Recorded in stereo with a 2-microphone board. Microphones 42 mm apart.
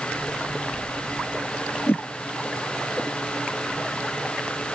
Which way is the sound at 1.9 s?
60° left (ahead or behind).